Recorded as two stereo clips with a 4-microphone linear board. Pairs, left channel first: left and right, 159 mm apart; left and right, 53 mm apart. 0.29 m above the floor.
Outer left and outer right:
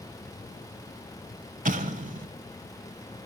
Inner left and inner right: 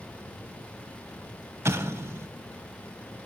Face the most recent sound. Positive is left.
turn(degrees=-55)  # may be behind; listen again after turning